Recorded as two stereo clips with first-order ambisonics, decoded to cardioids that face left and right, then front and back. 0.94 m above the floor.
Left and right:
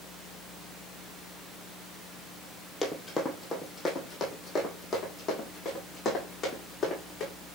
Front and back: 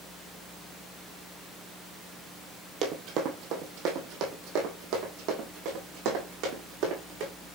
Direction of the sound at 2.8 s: 170° left.